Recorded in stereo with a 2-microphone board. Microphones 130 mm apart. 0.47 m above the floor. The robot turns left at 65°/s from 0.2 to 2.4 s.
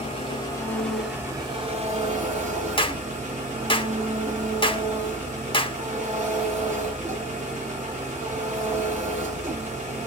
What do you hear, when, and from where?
0.0 s an engine running: 50° left, 1.9 m; by 10.1 s 95° right, 1.9 m
2.8 s a clap: 40° left (ahead or behind), 0.7 m